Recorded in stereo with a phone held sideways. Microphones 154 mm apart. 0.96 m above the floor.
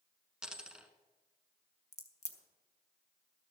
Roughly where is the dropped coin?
Centre.